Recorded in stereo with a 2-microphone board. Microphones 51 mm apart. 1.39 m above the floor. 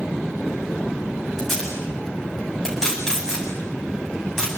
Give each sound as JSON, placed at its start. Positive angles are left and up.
{"t": 1.4, "sound": "tape being pulled", "side_deg": 10, "distance_m": 9.0}